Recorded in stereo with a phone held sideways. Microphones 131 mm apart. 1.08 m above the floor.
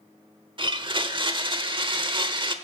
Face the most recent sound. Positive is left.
turn(degrees=-40)  # may be behind; listen again after turning